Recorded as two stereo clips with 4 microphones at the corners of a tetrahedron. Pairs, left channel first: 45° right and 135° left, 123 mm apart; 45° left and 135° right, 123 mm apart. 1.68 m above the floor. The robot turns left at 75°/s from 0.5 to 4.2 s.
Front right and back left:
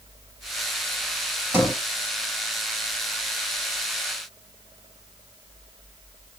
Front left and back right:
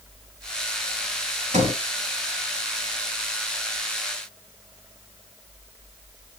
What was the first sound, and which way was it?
A sliding door, 155° right.